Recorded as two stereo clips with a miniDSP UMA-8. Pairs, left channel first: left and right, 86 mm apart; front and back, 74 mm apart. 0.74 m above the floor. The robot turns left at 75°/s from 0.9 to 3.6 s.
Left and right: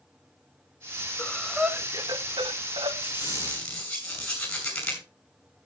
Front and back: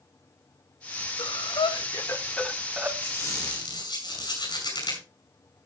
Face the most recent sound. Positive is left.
turn(degrees=10)